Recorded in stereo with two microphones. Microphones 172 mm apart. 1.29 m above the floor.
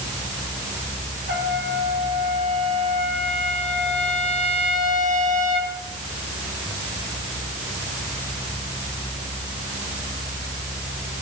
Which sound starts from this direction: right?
A trumpet, at 1.3 s.